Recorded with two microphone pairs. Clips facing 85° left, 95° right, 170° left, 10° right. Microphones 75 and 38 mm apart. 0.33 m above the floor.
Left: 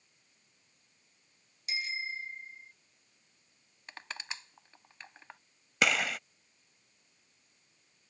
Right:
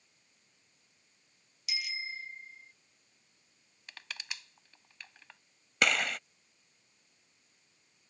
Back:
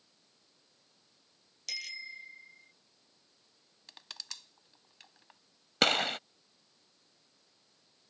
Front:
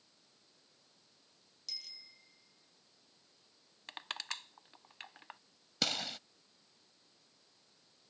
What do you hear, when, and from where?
1.7 s a bicycle bell: 140° left; by 2.7 s 145° left
3.9 s crushing: 30° left
5.8 s a gunshot: 175° left